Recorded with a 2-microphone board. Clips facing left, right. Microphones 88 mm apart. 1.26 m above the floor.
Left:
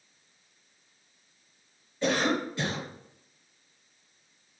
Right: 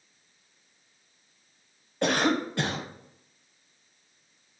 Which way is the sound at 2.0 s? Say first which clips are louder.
Right 2 dB; 60° right (ahead or behind).